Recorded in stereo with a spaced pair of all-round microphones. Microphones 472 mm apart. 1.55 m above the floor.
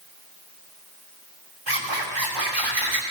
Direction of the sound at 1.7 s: 65° right (ahead or behind).